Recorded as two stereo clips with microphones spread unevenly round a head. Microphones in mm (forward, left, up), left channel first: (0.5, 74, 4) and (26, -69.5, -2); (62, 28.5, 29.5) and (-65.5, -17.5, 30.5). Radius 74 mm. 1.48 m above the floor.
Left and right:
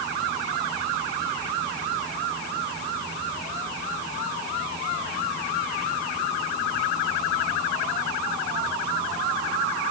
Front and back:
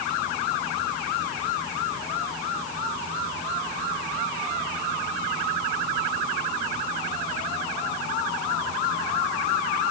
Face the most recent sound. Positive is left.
No sound to turn to.